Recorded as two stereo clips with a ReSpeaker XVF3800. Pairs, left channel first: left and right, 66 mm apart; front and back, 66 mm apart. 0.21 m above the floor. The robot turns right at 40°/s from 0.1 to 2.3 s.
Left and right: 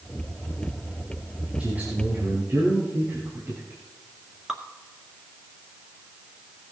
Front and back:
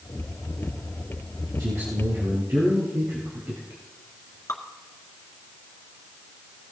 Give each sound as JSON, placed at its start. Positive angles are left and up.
{"t": 1.6, "sound": "a man speaking", "azimuth_deg": -160, "distance_m": 4.0}
{"t": 4.5, "sound": "dripping", "azimuth_deg": -10, "distance_m": 1.9}